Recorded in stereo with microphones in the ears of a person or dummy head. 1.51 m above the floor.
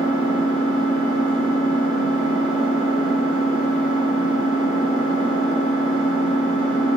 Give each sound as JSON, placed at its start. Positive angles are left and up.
{"t": 0.0, "sound": "an engine running", "side_deg": -20, "distance_m": 3.0}